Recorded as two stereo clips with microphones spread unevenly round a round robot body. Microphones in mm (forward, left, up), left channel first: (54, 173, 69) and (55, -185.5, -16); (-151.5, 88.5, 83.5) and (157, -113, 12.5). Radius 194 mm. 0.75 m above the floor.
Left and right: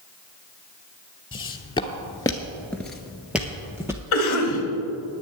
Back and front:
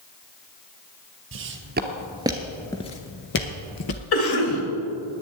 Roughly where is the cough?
Behind left.